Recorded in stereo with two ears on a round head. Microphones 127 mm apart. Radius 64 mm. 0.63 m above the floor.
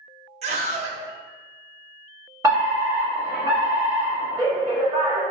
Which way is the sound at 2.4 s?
25° right (ahead or behind).